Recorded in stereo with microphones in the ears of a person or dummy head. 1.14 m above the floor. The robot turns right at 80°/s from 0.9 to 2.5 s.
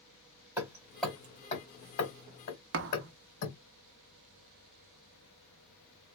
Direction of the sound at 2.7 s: 65° right (ahead or behind).